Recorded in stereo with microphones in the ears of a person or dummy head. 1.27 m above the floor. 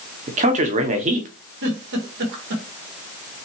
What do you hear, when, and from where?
0.3 s a man speaking: 35° right (ahead or behind), 0.7 m
1.6 s a giggle: 65° right (ahead or behind), 1.6 m